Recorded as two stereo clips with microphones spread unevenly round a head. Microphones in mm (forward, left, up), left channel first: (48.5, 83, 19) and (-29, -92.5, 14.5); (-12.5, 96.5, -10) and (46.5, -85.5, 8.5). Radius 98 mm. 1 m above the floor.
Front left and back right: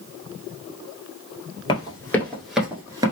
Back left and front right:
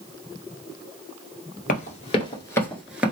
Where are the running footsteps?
115° left, 1.1 m; by 3.1 s 110° right, 1.0 m.